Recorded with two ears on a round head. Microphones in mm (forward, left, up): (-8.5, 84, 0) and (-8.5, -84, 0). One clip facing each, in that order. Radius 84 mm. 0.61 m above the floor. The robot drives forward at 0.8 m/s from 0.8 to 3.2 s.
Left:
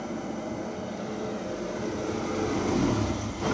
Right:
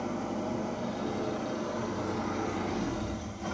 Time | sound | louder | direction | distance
0.0 | an engine running | even | 15° left (ahead or behind) | 1.9 m